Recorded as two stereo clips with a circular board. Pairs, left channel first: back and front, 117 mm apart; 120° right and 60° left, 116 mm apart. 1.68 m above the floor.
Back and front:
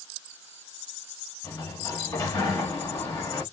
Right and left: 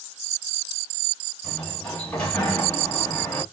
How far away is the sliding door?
About 1.3 m.